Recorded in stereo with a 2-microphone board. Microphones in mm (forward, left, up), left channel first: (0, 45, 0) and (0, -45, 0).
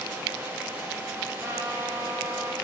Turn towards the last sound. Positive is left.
turn(degrees=-35)  # may be behind; listen again after turning